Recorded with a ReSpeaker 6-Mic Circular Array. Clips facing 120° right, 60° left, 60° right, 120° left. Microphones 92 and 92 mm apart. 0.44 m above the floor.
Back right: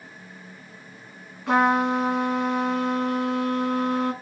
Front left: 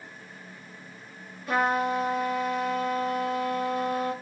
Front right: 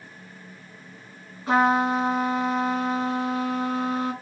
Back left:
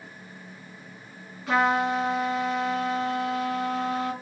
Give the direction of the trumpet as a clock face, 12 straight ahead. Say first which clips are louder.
Back right 5 dB, front right 3 dB; 4 o'clock.